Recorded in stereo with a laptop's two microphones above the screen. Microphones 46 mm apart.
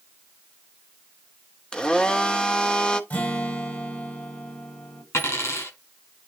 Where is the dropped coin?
65° left (ahead or behind), 5 m.